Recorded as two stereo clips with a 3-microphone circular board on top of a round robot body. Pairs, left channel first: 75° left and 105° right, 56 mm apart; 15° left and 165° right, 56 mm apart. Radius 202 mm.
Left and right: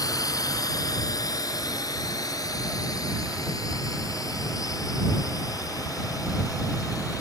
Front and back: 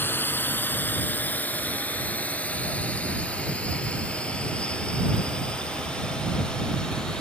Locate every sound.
0.0 s a drone: 70° left; by 7.2 s 95° left